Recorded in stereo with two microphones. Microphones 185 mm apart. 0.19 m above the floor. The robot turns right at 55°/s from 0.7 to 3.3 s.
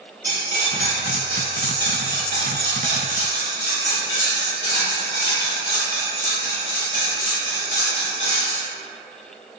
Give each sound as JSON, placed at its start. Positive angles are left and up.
{"t": 0.2, "sound": "cutlery clinking", "azimuth_deg": 60, "distance_m": 1.4}